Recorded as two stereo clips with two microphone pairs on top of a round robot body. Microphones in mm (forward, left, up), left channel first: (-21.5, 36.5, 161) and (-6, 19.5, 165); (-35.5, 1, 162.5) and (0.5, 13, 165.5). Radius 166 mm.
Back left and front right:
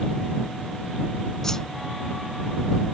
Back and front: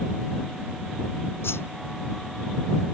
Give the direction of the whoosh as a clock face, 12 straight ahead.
5 o'clock.